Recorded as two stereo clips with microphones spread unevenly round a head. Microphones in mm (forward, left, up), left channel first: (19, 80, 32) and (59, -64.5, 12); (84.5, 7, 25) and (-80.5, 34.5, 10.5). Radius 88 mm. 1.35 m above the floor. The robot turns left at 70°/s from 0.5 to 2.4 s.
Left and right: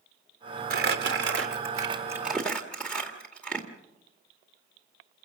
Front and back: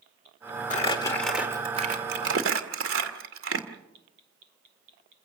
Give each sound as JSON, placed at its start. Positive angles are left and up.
{"t": 0.7, "sound": "crumpling", "azimuth_deg": -55, "distance_m": 1.9}